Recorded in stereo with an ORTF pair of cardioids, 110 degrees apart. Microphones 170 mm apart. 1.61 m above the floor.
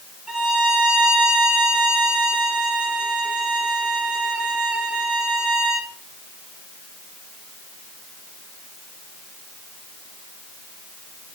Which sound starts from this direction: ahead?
A violin, at 0.3 s.